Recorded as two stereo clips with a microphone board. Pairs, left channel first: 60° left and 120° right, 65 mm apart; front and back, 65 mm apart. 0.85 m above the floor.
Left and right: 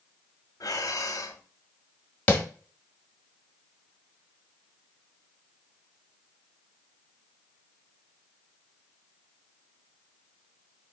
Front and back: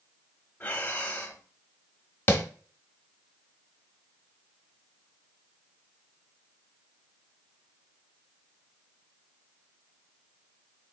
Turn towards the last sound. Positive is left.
turn(degrees=20)